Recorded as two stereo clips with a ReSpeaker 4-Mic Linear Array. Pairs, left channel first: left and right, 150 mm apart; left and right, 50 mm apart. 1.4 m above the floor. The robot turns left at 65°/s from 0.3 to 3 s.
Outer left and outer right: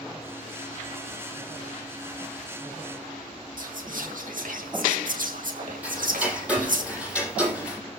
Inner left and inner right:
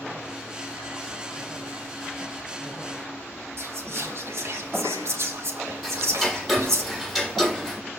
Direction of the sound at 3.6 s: 65° right (ahead or behind).